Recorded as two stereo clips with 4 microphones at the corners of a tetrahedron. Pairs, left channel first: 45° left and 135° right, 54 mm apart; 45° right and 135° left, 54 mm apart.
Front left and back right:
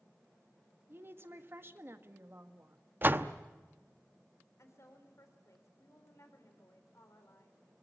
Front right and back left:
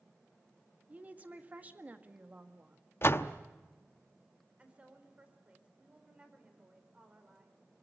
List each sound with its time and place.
0.9 s a woman speaking: 170° right, 1.6 m
3.0 s a door slam: 85° right, 0.8 m
4.6 s a woman speaking: 70° left, 4 m